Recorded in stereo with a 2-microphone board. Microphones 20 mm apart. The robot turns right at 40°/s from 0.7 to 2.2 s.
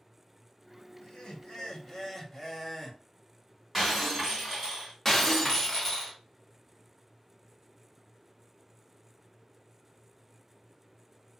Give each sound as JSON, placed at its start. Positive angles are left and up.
{"t": 1.0, "sound": "laughter", "azimuth_deg": 110, "distance_m": 0.8}
{"t": 3.7, "sound": "breaking glass", "side_deg": -5, "distance_m": 1.8}
{"t": 5.0, "sound": "breaking glass", "side_deg": 10, "distance_m": 0.7}